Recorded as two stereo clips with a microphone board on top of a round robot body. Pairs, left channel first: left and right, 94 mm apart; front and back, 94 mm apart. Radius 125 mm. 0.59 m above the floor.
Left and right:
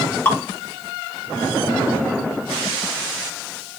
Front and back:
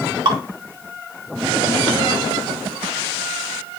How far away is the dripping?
About 1.5 m.